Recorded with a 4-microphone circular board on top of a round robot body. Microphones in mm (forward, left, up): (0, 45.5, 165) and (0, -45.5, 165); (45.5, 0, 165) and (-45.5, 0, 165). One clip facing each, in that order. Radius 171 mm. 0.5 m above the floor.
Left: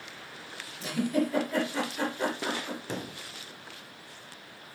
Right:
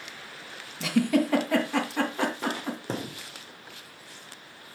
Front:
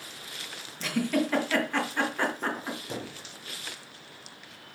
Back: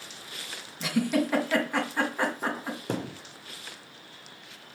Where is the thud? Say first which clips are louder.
Right 3 dB, back 5 dB; 145° right, 1.2 m.